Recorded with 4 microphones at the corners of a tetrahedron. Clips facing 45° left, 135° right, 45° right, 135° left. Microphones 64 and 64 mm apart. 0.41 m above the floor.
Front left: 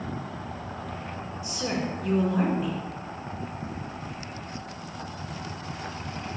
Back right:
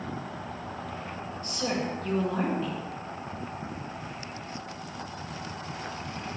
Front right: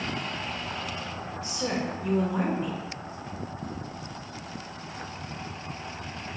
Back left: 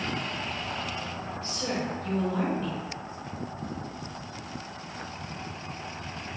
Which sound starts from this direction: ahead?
A woman speaking, at 1.4 s.